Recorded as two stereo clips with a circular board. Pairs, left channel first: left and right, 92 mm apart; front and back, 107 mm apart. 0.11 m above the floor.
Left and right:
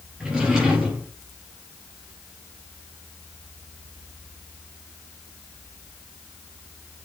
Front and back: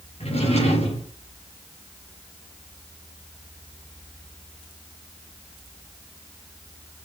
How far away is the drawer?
About 5 m.